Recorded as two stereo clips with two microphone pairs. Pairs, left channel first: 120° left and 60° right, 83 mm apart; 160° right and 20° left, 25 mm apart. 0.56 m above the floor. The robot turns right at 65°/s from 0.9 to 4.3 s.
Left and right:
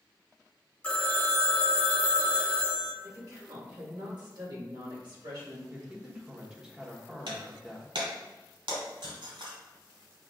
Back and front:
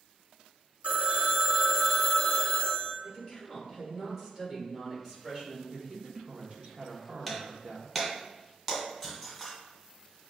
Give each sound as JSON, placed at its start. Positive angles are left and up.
{"t": 0.8, "sound": "a phone ringing", "azimuth_deg": 50, "distance_m": 0.9}
{"t": 3.0, "sound": "a woman speaking", "azimuth_deg": -120, "distance_m": 2.0}
{"t": 5.7, "sound": "a man speaking", "azimuth_deg": 15, "distance_m": 1.0}
{"t": 7.3, "sound": "breaking glass", "azimuth_deg": -65, "distance_m": 1.7}